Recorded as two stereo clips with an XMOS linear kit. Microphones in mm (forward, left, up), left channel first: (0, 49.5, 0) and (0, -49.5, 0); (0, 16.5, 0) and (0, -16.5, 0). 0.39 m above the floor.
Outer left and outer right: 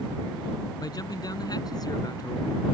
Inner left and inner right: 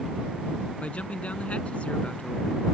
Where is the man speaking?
45° left (ahead or behind).